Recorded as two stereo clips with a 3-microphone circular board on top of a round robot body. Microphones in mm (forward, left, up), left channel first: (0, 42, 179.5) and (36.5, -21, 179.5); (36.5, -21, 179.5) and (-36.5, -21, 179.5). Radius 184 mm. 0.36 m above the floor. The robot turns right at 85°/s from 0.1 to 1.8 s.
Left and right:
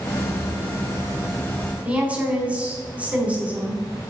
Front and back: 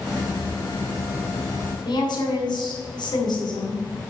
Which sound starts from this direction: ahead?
A woman speaking, at 1.9 s.